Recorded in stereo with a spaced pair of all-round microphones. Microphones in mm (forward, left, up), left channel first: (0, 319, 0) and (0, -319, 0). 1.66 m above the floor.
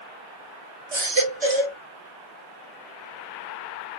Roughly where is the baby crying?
Right.